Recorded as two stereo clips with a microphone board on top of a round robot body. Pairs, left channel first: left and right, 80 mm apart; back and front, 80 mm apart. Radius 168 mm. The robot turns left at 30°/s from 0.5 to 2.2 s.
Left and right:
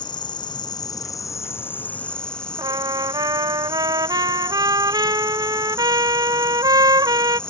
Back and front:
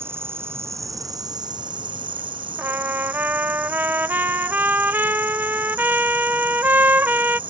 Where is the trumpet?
65° right.